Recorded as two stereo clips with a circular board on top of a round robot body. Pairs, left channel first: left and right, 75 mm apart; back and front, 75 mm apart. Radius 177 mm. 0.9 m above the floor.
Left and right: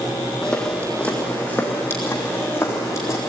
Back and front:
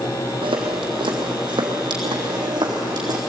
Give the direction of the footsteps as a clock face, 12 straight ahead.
12 o'clock.